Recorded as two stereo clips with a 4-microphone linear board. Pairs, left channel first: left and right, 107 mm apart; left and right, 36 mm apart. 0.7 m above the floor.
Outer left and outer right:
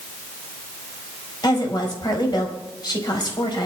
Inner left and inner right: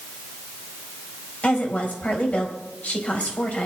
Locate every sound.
1.4 s a woman speaking: 45° left (ahead or behind), 4 m